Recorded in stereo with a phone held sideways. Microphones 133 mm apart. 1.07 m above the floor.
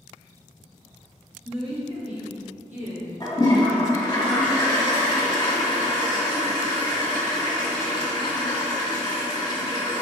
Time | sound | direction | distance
1.4 | a woman speaking | 40° right (ahead or behind) | 0.9 m
3.2 | a toilet flushing | 30° left (ahead or behind) | 1.6 m